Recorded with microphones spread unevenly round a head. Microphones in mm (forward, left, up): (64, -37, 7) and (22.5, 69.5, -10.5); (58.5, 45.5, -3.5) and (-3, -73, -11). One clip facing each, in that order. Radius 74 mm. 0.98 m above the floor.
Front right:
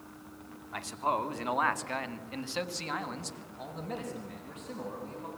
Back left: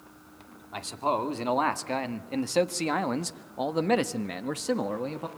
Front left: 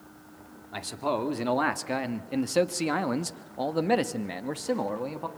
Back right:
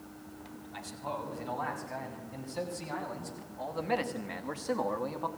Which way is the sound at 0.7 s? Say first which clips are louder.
Back left 3 dB, front left 10 dB; 45° left.